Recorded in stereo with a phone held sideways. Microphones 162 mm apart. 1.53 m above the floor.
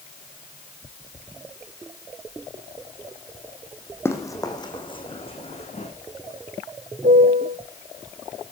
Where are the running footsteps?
15° left (ahead or behind), 3 m; by 5.9 s 45° left (ahead or behind), 4.5 m.